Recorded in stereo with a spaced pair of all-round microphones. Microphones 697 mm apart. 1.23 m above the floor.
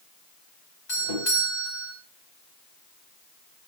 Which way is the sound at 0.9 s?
75° left (ahead or behind).